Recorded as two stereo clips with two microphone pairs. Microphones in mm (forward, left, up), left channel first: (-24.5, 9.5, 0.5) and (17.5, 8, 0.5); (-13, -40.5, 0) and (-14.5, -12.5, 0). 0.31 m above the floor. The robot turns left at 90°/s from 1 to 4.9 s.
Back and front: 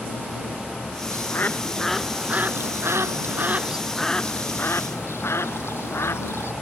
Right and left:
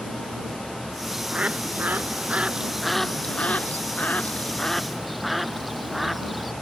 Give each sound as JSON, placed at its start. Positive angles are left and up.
{"t": 1.1, "sound": "a bird", "azimuth_deg": 165}